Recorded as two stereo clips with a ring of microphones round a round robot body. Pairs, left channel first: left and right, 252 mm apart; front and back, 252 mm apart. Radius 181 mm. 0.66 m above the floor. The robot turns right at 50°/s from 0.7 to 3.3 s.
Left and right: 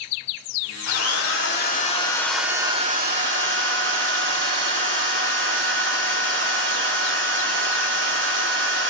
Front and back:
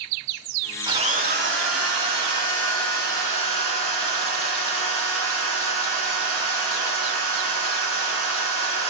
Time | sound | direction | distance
0.9 | a drill | 105° left | 1.4 m